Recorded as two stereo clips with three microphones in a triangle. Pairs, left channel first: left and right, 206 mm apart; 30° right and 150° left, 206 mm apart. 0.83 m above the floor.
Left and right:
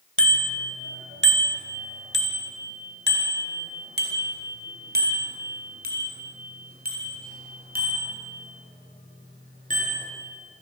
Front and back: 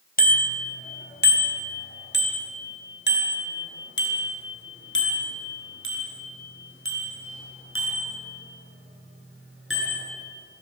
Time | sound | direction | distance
0.2 | a bicycle bell | 75° right | 3.5 m